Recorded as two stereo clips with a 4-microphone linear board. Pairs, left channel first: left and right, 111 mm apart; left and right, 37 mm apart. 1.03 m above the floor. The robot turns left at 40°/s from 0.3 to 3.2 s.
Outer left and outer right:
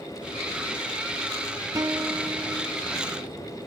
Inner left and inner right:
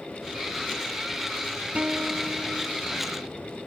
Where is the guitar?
135° right; by 2.8 s 175° right.